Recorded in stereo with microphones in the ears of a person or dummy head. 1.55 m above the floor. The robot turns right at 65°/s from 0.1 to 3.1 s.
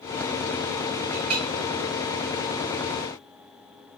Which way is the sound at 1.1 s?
70° right (ahead or behind).